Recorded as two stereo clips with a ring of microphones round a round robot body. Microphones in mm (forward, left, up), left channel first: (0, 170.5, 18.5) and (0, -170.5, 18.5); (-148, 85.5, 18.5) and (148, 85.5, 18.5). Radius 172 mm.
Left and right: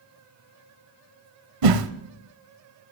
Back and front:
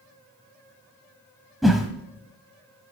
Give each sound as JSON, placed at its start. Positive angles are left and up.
{"t": 1.6, "sound": "a whoosh", "azimuth_deg": -90, "distance_m": 0.8}